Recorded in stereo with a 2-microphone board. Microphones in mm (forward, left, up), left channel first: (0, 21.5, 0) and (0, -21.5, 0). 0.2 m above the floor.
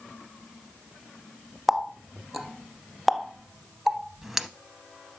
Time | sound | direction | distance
1.7 | a running tap | 10° right (ahead or behind) | 0.7 m